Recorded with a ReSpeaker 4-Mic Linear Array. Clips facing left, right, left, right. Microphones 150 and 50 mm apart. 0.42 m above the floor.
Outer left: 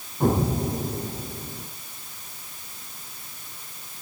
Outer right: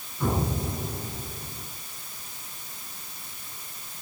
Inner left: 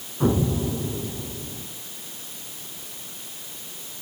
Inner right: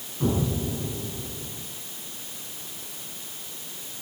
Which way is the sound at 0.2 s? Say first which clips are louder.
Outer left 5 dB, inner left 4 dB; 45° left (ahead or behind).